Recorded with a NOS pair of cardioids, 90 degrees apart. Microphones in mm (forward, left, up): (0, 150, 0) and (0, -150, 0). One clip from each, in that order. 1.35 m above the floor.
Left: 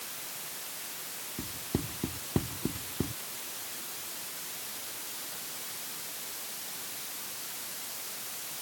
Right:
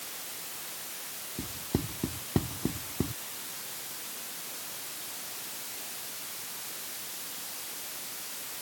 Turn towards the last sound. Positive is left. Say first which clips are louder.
# right 2 dB
turn(degrees=-15)